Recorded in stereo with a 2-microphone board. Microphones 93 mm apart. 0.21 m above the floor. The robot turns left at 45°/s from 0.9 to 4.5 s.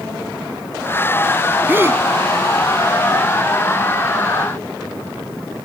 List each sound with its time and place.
1.7 s a gasp: 20° right (ahead or behind); by 2.0 s 30° right (ahead or behind)